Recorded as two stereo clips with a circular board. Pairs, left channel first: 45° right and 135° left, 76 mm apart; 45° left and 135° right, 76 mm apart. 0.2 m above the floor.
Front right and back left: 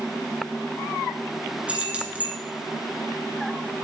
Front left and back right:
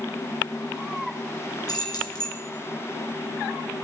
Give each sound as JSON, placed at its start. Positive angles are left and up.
{"t": 1.7, "sound": "keys jangling", "azimuth_deg": 65, "distance_m": 1.7}